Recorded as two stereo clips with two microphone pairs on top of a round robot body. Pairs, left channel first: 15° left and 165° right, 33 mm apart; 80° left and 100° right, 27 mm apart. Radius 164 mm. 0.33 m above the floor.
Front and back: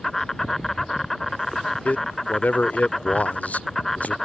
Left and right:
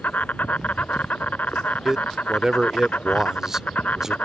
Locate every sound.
0.0 s an insect: 95° left
1.9 s a man speaking: 25° right